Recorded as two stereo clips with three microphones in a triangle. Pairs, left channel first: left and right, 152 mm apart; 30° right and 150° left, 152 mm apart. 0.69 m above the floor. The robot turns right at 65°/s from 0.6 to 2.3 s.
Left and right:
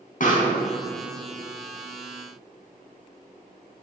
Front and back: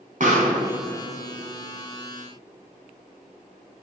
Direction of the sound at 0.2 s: 120° left.